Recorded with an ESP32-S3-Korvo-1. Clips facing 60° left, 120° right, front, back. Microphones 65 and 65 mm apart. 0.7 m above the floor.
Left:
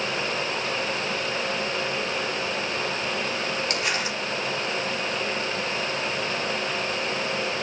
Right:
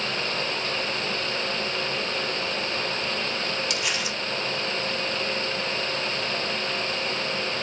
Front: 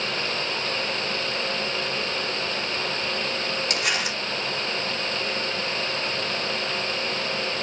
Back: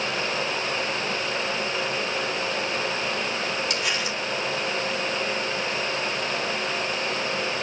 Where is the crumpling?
25° left, 2.5 m.